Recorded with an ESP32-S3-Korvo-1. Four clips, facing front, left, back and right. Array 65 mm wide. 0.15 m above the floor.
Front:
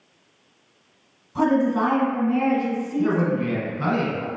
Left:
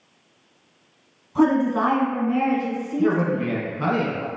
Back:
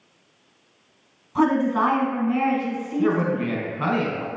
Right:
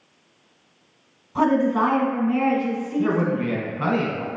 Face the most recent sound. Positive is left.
turn(degrees=-155)